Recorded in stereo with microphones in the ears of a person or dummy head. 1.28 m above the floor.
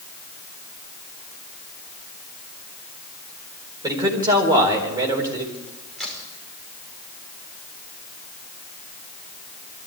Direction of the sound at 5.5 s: 5° left (ahead or behind).